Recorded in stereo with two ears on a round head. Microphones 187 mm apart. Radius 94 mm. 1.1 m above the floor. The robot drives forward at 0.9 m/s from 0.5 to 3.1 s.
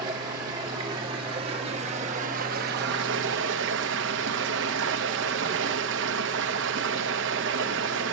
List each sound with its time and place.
0.0 s running water: 20° right (ahead or behind), 3 m; by 8.1 s 60° right (ahead or behind), 1.1 m